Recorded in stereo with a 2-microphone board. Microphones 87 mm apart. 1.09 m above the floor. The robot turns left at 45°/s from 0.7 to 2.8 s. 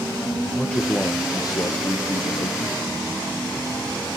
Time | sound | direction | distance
0.6 | a man speaking | 165° left | 0.6 m